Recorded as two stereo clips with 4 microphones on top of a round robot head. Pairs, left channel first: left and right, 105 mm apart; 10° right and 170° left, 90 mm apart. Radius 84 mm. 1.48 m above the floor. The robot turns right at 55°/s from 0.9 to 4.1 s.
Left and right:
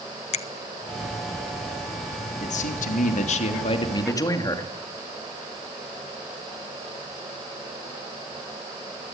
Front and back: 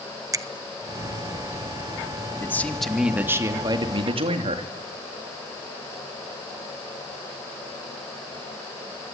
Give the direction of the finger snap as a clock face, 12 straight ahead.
8 o'clock.